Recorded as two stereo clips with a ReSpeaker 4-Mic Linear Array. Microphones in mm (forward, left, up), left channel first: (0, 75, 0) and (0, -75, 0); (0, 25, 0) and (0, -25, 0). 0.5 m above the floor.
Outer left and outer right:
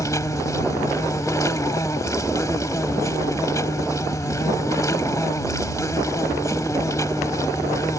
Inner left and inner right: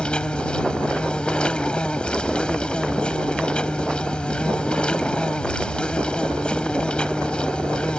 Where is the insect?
20° left (ahead or behind).